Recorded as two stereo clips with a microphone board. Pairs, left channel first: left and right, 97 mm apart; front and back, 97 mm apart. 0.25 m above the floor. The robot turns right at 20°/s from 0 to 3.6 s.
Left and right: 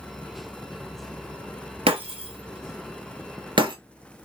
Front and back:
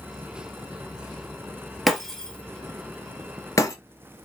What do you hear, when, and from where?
1.9 s breaking glass: 90° right, 0.6 m; by 3.8 s 55° right, 0.6 m